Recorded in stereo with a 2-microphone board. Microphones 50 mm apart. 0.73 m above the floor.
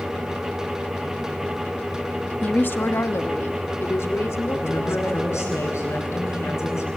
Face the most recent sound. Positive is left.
turn(degrees=65)  # may be behind; listen again after turning